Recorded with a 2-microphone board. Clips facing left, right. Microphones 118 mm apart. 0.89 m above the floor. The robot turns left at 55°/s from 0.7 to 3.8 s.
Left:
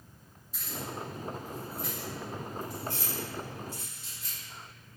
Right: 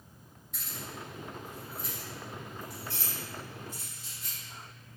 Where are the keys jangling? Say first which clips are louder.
Left 5 dB; 65° right (ahead or behind), 1.9 m; by 4.4 s 75° left (ahead or behind), 1.9 m.